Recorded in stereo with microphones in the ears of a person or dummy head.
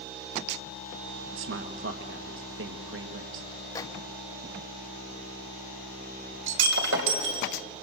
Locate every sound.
1.3 s a man speaking: 75° right (ahead or behind), 1.7 m
3.8 s a microwave: 20° left (ahead or behind), 1.7 m
6.5 s breaking glass: 80° right, 3 m